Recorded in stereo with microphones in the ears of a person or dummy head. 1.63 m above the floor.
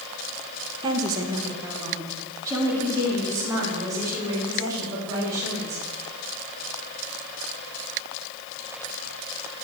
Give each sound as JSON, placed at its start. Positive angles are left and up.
{"t": 0.8, "sound": "a woman speaking", "side_deg": -20, "distance_m": 1.6}